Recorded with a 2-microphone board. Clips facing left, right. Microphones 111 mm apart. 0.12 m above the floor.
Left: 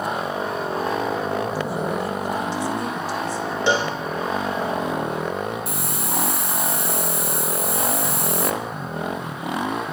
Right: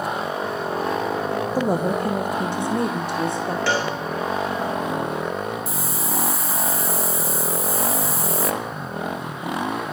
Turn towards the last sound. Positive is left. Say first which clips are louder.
# even
turn(degrees=70)  # may be behind; listen again after turning